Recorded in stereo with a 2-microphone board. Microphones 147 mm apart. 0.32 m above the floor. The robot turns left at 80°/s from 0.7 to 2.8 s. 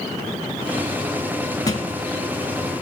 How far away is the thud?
About 1.5 m.